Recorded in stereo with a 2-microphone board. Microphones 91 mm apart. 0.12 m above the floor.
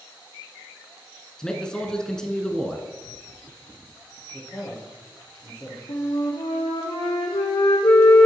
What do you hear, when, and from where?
1.4 s a man speaking: 10° left (ahead or behind), 1.1 m
4.3 s a man speaking: 25° left (ahead or behind), 3.5 m
5.9 s a flute: 70° left (ahead or behind), 1.9 m